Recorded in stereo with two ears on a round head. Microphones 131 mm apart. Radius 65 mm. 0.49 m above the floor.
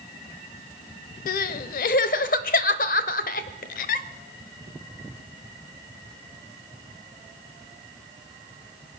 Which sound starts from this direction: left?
Crying, at 1.3 s.